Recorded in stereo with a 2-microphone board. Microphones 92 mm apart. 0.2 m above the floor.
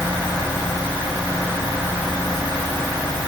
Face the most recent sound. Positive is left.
No sound to turn to.